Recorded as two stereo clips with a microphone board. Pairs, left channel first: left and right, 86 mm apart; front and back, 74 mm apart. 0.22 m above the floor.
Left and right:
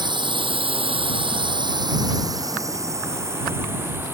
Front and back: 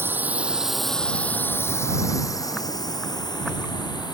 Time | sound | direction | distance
0.0 | a drone | 120° right | ?